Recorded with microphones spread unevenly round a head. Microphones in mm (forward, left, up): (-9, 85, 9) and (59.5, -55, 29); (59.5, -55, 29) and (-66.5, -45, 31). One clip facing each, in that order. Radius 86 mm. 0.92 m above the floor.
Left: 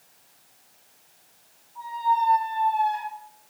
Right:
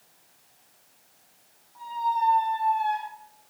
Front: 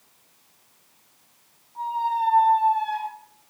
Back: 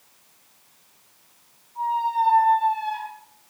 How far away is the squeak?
About 1.1 m.